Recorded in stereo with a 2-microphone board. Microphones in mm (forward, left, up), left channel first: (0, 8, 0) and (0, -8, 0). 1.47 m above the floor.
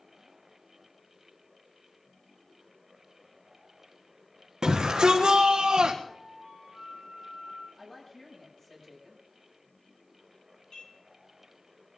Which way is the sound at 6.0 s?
50° left (ahead or behind).